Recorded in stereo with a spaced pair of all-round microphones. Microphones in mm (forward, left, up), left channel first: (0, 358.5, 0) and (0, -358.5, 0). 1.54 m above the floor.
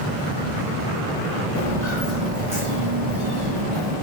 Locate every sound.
1.6 s footsteps: 25° right (ahead or behind), 1.8 m; by 3.9 s 45° left (ahead or behind), 2.5 m